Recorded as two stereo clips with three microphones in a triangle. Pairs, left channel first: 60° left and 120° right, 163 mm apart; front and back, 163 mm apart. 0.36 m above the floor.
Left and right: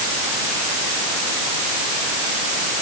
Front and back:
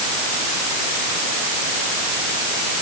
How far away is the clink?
No clink in this recording.